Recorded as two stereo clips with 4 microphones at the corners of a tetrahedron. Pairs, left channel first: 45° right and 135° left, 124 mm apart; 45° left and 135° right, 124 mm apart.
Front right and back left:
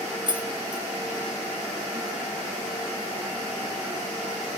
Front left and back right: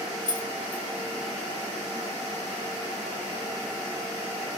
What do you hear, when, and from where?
0.3 s keys jangling: 175° left, 1.5 m